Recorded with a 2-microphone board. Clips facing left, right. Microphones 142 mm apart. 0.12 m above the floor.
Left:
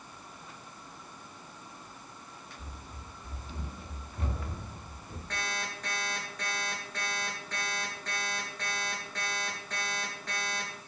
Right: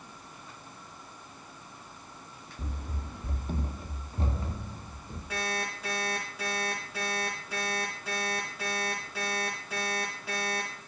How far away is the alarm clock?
About 5.5 m.